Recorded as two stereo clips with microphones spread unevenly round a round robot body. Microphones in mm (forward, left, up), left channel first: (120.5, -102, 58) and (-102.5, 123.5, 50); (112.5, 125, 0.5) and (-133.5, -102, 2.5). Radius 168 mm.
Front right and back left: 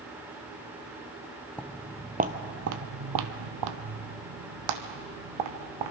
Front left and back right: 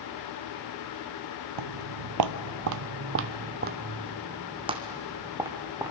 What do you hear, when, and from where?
1.6 s footsteps: 130° right, 0.8 m; by 5.9 s 140° left, 2.5 m